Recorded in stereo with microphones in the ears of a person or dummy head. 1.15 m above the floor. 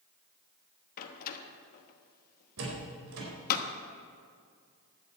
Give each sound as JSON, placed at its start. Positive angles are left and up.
{"t": 1.0, "sound": "a door slam", "side_deg": 45, "distance_m": 1.2}
{"t": 2.6, "sound": "a door slam", "side_deg": -80, "distance_m": 4.5}